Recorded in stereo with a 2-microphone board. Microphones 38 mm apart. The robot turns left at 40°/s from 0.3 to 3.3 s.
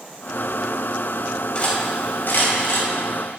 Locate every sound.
1.6 s cutlery clinking: 25° left (ahead or behind), 2.5 m; by 2.9 s 80° left, 2.5 m